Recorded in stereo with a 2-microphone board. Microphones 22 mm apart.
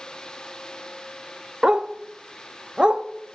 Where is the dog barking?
40° right (ahead or behind), 0.5 m.